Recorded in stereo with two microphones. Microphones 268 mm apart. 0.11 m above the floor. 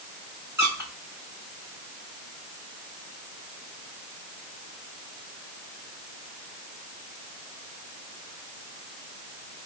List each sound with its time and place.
0.6 s a squeak: 10° right (ahead or behind), 2.0 m